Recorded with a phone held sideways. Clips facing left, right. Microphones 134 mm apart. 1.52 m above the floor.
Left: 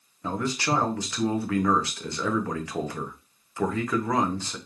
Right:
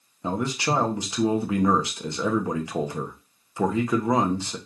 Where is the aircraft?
No aircraft in this recording.